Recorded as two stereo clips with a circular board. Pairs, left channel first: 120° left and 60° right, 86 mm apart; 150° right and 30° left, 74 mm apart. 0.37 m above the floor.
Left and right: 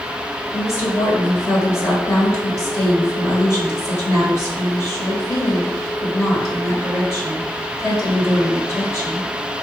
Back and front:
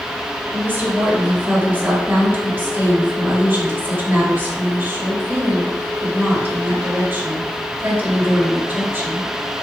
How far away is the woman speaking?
About 1.7 m.